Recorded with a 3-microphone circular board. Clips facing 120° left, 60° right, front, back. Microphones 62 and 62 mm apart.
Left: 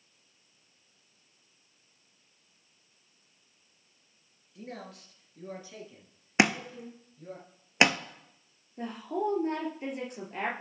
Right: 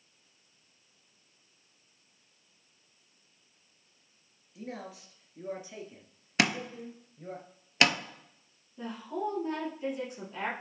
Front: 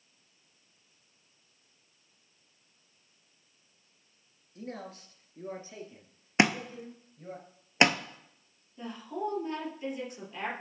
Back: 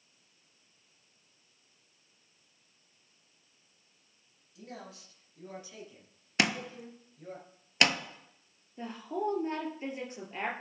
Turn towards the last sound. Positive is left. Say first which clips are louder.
# left 3 dB, back 1 dB
turn(degrees=130)